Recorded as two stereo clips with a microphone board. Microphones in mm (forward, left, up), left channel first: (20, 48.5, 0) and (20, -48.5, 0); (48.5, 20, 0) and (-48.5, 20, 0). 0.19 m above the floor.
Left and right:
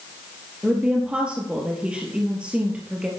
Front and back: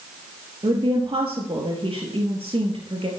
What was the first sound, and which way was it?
A woman speaking, 170° right.